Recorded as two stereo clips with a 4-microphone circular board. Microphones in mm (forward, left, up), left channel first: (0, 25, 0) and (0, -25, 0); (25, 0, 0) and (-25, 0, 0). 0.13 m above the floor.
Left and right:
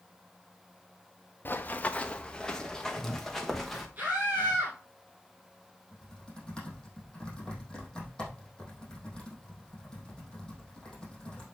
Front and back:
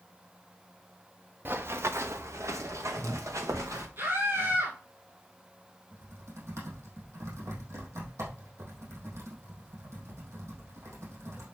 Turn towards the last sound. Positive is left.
turn(degrees=160)